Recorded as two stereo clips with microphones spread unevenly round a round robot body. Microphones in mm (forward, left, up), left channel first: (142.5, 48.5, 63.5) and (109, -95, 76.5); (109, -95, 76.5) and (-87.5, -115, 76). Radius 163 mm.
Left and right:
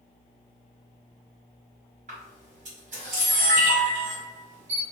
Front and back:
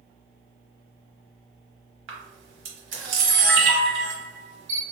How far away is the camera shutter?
About 1.1 m.